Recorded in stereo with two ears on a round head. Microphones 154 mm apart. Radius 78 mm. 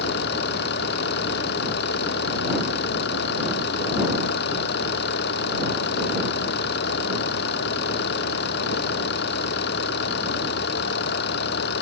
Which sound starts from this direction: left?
An engine running, at 0.0 s.